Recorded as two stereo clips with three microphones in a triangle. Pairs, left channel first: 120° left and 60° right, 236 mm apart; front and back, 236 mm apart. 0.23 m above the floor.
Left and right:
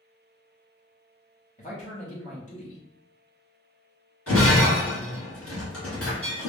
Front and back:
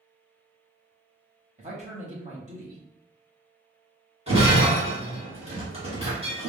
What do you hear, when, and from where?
1.6 s a man speaking: 150° left, 1.1 m
4.3 s breaking glass: 115° left, 1.6 m